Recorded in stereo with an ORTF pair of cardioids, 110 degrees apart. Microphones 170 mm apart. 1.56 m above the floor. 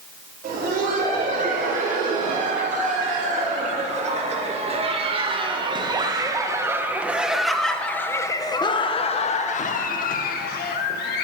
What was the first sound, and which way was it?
Laughter, 50° right.